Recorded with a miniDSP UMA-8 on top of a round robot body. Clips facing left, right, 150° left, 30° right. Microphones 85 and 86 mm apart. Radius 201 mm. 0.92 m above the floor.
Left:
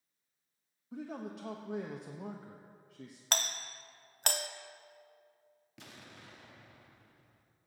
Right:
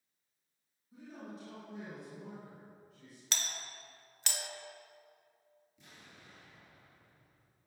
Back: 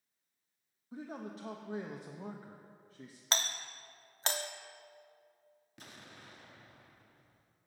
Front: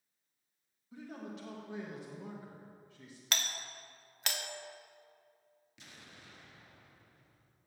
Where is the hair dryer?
No hair dryer in this recording.